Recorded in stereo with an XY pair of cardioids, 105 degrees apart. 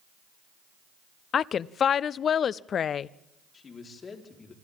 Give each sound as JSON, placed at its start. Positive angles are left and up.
{"t": 1.3, "sound": "a woman speaking", "azimuth_deg": 50, "distance_m": 0.5}
{"t": 3.5, "sound": "a man speaking", "azimuth_deg": 40, "distance_m": 4.0}